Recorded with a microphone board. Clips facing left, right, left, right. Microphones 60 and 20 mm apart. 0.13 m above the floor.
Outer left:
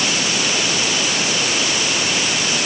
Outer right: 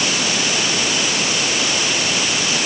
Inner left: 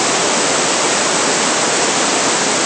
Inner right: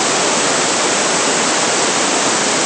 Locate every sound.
Only background noise.